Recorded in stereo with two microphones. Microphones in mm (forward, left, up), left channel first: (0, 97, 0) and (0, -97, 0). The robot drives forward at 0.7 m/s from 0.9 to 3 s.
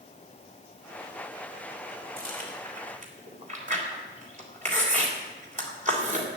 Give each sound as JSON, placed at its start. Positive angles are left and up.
{"t": 2.2, "sound": "chewing", "side_deg": -50, "distance_m": 3.0}